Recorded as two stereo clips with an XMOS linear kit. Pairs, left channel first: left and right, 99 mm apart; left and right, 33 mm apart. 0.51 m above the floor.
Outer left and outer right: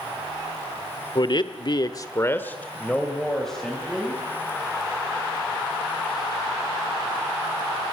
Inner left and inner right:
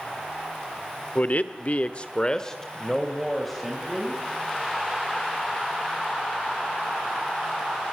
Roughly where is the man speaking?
Left.